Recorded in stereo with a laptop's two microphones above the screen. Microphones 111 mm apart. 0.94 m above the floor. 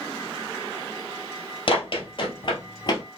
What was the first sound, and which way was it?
Running footsteps, 55° left (ahead or behind).